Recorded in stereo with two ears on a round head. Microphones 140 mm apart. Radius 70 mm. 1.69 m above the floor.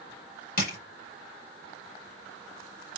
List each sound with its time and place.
0.6 s crushing: 60° left (ahead or behind), 2.5 m